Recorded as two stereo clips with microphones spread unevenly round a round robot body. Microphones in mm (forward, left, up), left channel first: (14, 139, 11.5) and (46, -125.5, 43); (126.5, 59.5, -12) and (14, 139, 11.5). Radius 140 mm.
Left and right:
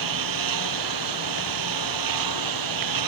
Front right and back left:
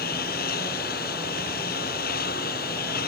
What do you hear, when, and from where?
0.0 s a lawn mower: 80° right; by 3.1 s 85° right